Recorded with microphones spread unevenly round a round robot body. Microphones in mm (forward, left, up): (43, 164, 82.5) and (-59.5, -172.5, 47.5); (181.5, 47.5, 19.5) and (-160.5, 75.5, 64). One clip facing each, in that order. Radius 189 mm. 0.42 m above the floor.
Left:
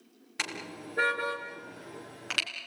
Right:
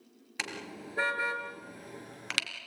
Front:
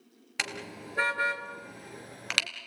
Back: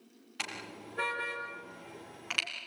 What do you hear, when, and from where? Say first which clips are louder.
0.4 s a car horn: left 1 dB, front 5 dB; 25° right, 4 m; by 2.5 s 40° right, 3 m